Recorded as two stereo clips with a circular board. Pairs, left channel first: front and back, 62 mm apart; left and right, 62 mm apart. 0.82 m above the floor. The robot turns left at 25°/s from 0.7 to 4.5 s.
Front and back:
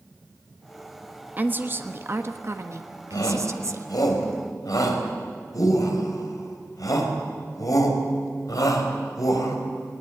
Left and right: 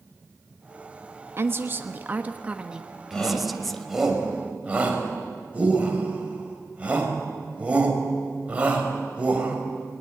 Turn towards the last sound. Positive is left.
turn(degrees=-20)